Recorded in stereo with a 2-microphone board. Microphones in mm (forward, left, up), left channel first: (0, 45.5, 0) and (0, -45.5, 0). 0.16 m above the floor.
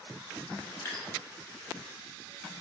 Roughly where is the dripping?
Left.